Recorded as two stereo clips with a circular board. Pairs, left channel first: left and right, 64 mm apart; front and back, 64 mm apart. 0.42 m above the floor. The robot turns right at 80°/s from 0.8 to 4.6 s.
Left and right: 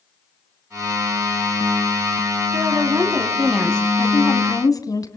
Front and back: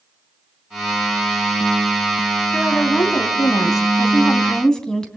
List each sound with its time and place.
2.5 s a woman speaking: 85° right, 2.5 m; by 5.2 s 80° left, 2.5 m